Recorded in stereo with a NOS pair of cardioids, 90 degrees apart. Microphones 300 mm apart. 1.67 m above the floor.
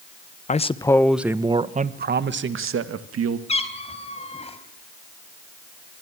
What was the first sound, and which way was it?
A man speaking, 25° left.